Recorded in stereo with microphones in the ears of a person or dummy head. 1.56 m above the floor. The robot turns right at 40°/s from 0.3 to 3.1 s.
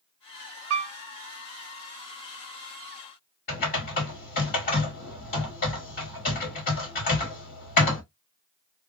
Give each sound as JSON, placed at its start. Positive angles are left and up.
{"t": 0.7, "sound": "a piano", "side_deg": -75, "distance_m": 0.7}
{"t": 3.5, "sound": "typing on a keyboard", "side_deg": 45, "distance_m": 1.6}